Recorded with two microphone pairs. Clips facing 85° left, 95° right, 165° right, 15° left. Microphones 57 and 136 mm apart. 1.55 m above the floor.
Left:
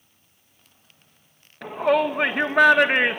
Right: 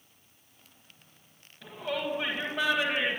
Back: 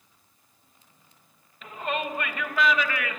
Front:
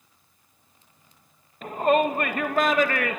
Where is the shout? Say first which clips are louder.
Left 13 dB, front 10 dB; 60° left, 2.0 m.